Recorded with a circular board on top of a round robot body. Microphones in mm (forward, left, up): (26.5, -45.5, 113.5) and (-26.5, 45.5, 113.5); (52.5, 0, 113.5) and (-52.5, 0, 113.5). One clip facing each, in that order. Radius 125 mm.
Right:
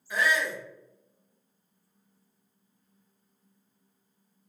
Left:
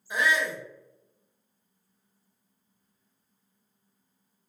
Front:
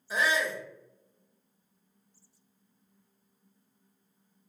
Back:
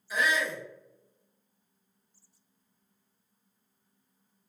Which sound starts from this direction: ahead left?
A shout, at 0.1 s.